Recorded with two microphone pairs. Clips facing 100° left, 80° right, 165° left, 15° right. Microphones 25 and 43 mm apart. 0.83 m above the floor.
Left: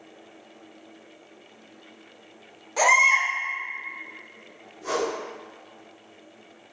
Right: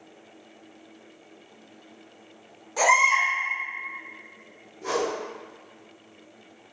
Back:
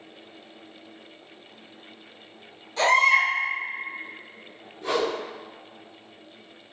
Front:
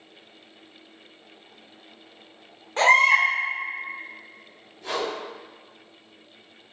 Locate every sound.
2.8 s a baby crying: 25° left, 1.1 m
4.8 s a whoosh: 145° right, 1.9 m